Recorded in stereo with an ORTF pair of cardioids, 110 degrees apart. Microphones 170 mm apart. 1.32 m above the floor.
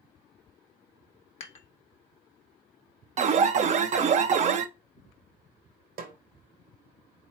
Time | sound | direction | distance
1.4 | dishes clattering | 40° left | 1.0 m
3.2 | an alarm | 45° right | 0.6 m
6.0 | a snare drum | 60° right | 1.3 m